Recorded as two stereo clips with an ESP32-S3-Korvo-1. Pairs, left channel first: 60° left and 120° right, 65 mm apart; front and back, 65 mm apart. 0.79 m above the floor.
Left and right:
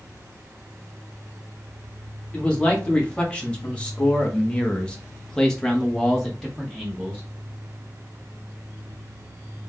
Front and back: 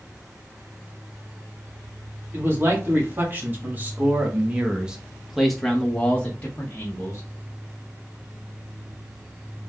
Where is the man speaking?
130° left, 2 m; by 7.2 s 35° right, 1.3 m.